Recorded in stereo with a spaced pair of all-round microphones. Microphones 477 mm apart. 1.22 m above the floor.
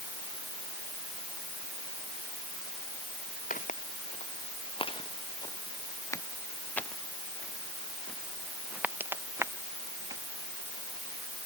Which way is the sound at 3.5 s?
15° left (ahead or behind).